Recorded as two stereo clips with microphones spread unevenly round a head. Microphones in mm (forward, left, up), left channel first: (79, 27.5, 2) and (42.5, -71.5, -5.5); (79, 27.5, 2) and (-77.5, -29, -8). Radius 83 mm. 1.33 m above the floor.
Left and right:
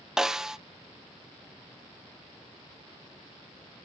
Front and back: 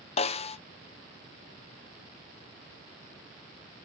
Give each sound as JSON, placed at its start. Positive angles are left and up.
{"t": 0.2, "sound": "a snare drum", "azimuth_deg": -30, "distance_m": 0.7}